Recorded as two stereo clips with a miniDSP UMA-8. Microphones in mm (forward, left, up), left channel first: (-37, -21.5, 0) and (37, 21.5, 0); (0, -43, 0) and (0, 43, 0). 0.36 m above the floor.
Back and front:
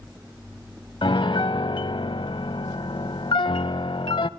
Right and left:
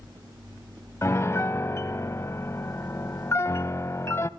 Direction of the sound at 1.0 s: 145° right.